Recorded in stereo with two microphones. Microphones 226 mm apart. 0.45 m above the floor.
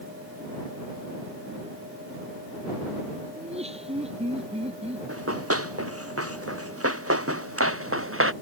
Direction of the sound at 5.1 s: 85° right.